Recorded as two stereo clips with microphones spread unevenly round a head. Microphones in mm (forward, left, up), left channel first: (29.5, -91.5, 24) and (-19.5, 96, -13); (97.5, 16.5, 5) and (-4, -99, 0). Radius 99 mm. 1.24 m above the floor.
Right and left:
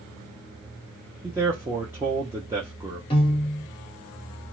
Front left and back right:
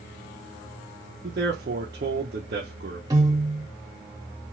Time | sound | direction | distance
1.2 | a man speaking | straight behind | 0.6 m
3.1 | a piano | 75° right | 0.9 m